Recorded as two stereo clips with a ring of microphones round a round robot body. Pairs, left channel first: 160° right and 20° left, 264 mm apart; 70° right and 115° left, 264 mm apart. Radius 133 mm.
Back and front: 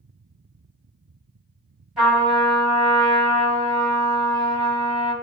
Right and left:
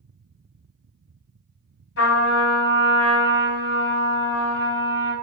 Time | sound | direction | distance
2.0 | a trumpet | 65° right | 1.4 m